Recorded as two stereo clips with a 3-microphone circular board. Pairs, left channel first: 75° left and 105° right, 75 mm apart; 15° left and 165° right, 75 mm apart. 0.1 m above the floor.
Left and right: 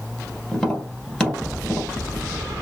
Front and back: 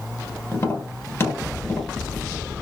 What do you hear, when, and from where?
0.5 s tapping: straight ahead, 1.6 m